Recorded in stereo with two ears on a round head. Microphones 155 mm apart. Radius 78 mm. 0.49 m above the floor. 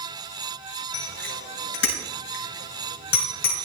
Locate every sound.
0.9 s a bicycle bell: 80° left, 6 m; by 3.6 s 55° left (ahead or behind), 4 m